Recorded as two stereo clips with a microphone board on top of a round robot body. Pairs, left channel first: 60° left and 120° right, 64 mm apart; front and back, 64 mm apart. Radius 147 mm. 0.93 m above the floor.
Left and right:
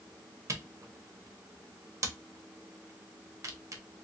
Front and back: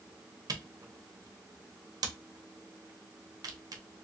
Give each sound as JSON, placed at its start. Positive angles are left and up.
{"t": 0.5, "sound": "a camera shutter", "azimuth_deg": -165, "distance_m": 1.0}